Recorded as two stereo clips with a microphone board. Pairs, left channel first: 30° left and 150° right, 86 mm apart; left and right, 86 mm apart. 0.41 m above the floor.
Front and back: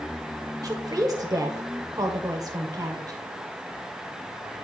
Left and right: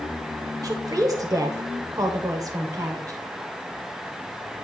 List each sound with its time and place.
0.6 s a woman speaking: 120° right, 1.2 m